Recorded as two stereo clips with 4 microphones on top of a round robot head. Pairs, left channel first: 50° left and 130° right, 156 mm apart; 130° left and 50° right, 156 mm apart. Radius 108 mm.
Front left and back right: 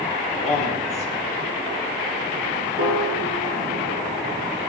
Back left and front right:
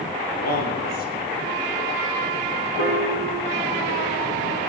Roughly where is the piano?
Behind.